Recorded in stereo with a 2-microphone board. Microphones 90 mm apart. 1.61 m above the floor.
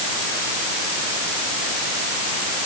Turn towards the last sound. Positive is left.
No sound to turn to.